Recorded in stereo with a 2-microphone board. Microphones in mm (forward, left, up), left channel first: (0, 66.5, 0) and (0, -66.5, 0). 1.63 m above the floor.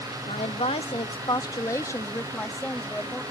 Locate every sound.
0.3 s a woman speaking: 60° left (ahead or behind); by 3.2 s 5° left (ahead or behind)